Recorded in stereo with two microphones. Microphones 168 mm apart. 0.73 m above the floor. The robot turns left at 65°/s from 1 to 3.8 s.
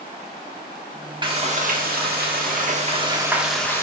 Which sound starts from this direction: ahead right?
Frying, at 1.2 s.